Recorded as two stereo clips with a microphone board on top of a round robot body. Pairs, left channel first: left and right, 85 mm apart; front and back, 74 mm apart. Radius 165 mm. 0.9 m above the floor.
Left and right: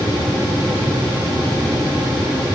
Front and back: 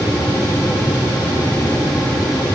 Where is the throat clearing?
No throat clearing in this recording.